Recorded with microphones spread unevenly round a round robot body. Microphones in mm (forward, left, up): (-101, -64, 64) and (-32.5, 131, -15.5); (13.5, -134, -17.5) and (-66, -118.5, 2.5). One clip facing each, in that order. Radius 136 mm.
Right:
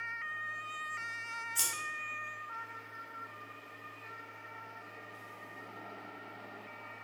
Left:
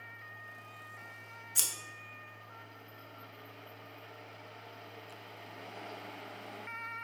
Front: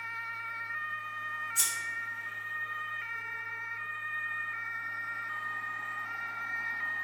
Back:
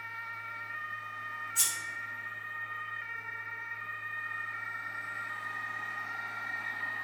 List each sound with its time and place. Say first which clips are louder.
1.6 s scissors: even, front 2 dB; 50° left, 0.5 m